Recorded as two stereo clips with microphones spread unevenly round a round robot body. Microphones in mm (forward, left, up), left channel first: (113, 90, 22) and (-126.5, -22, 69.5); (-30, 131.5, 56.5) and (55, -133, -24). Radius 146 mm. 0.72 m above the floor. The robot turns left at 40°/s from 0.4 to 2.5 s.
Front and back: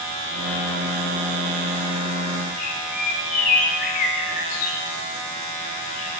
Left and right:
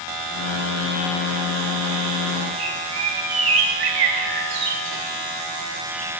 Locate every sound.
2.6 s a bird: 35° right, 1.8 m